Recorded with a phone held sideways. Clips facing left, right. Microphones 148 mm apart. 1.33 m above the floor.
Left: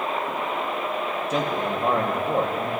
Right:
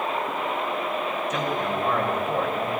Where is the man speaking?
30° left (ahead or behind), 1.4 m.